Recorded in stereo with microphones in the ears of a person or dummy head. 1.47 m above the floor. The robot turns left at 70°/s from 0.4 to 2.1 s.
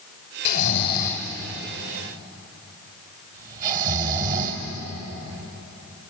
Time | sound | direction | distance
0.5 | snoring | 55° left (ahead or behind) | 2.5 m